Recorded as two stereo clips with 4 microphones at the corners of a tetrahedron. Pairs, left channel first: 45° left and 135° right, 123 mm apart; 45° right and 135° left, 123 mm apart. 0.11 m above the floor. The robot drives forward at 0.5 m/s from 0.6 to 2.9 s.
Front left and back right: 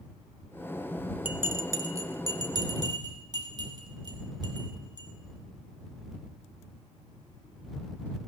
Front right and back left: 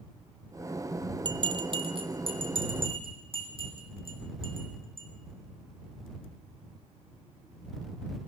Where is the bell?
155° left, 0.6 m; by 5.1 s 170° left, 1.3 m.